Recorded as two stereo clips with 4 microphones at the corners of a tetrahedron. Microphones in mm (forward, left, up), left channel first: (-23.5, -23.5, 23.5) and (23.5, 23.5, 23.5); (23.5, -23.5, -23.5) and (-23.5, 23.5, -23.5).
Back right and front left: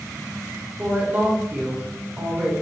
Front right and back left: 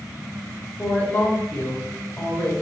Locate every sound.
0.8 s a woman speaking: 10° right, 0.9 m